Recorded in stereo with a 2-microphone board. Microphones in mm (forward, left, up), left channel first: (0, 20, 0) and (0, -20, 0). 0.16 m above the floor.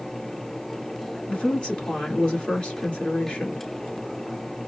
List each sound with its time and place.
1.3 s a woman speaking: 25° left (ahead or behind), 2.5 m